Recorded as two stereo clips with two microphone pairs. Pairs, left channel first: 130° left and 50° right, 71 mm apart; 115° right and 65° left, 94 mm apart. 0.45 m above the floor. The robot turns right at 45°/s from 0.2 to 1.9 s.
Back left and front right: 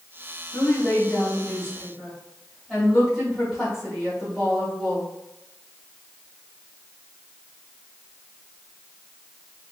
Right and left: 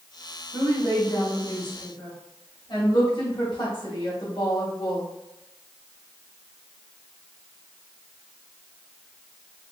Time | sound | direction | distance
0.5 | a woman speaking | 170° left | 2.0 m